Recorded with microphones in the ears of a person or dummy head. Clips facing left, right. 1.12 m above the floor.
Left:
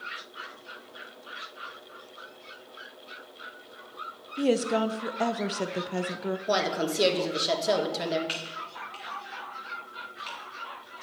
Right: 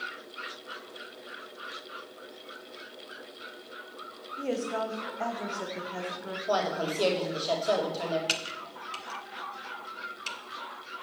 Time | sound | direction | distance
4.4 | a woman speaking | 50° left (ahead or behind) | 0.8 m
6.5 | a woman speaking | 30° left (ahead or behind) | 2.5 m
8.3 | typing on a keyboard | 55° right (ahead or behind) | 1.5 m